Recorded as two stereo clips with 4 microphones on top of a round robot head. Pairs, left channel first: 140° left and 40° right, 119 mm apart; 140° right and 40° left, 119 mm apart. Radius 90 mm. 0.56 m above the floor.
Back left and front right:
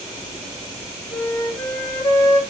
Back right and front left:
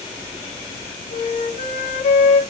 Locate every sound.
1.1 s a flute: 155° right, 1.8 m